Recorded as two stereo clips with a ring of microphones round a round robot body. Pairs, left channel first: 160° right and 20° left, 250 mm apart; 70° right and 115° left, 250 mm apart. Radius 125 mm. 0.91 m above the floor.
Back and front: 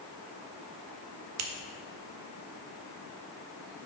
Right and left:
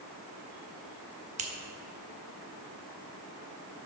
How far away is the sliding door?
No sliding door in this recording.